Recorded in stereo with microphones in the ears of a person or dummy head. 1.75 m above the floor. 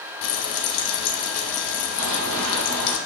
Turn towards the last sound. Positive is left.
turn(degrees=-60)  # may be behind; listen again after turning